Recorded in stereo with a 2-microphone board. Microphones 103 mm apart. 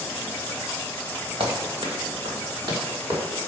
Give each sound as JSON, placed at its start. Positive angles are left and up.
{"t": 1.4, "sound": "running footsteps", "side_deg": -65, "distance_m": 1.5}